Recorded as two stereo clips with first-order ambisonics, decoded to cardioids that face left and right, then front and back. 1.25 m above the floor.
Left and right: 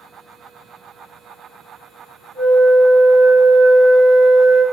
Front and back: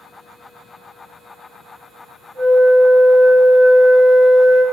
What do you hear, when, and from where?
2.4 s a flute: 165° right, 1.1 m